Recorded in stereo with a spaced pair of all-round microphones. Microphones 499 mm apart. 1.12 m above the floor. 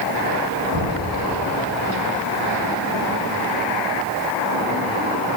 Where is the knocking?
85° right, 10 m.